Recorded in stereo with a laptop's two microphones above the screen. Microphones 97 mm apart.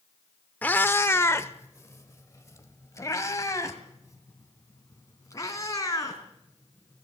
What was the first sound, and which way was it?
A cat meowing, 15° left (ahead or behind).